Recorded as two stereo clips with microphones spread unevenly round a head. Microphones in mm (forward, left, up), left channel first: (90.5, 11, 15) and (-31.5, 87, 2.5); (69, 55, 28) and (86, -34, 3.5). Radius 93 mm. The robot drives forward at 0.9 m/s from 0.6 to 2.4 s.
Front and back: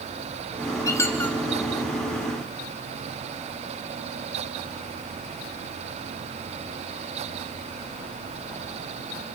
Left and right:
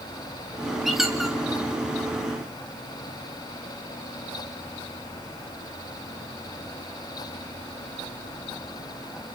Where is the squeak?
20° left, 1.7 m; by 1.4 s 35° left, 1.5 m.